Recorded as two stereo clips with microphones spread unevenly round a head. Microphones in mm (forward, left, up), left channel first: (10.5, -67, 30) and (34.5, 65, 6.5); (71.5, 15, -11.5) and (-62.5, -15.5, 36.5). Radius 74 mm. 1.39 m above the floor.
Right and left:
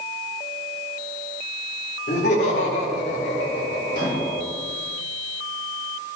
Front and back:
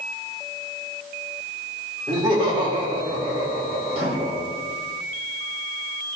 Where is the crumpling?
I don't hear crumpling.